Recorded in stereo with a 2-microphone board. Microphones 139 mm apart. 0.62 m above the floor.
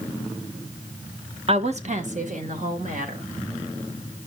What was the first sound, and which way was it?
A woman speaking, 45° right (ahead or behind).